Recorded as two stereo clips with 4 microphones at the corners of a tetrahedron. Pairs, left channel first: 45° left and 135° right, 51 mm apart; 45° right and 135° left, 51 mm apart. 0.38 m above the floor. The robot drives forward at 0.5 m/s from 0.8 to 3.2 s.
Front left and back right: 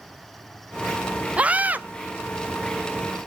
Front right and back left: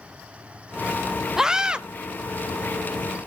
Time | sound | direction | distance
1.4 | a scream | 160° right | 0.8 m